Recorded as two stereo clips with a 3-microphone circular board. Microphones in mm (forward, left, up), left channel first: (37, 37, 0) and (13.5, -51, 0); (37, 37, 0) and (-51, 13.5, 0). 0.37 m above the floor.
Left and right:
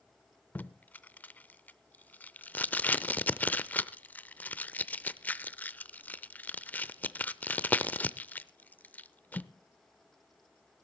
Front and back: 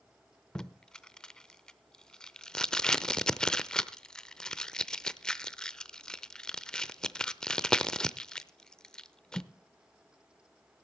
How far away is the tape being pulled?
About 0.6 m.